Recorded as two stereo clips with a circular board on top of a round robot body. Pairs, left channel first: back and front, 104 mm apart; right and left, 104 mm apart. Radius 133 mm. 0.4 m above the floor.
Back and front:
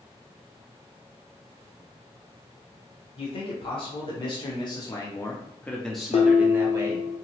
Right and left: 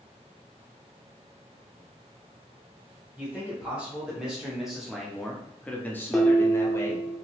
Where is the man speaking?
165° left, 1.6 m; by 7.1 s 40° right, 1.1 m.